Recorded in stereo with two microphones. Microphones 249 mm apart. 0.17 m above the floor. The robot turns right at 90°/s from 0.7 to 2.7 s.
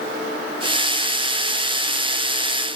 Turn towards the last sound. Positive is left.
No sound to turn to.